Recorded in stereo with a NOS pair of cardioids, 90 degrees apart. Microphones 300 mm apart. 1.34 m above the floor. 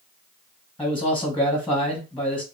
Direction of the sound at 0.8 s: Straight ahead.